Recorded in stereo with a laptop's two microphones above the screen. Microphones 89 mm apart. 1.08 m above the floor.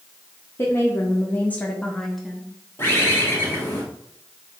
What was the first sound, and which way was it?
A woman speaking, 25° left (ahead or behind).